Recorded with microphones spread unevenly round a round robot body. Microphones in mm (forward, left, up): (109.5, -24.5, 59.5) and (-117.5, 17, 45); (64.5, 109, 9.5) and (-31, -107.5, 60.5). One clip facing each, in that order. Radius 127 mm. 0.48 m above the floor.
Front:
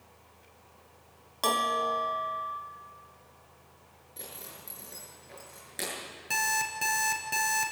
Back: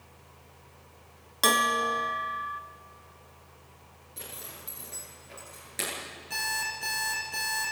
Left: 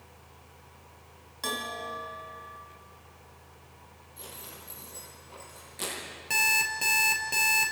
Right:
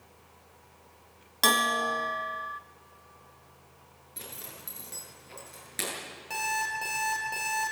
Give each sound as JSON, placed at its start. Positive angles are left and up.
{"t": 1.4, "sound": "a bell", "azimuth_deg": -130, "distance_m": 0.9}
{"t": 4.2, "sound": "a zipper", "azimuth_deg": -105, "distance_m": 9.0}
{"t": 6.3, "sound": "an alarm clock", "azimuth_deg": 10, "distance_m": 4.0}